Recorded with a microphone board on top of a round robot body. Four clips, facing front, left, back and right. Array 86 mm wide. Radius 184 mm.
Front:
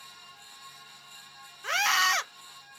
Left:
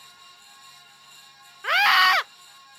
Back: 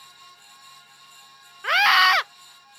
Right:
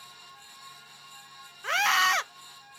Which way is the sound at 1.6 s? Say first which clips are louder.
Left 6 dB, back 8 dB; 145° left.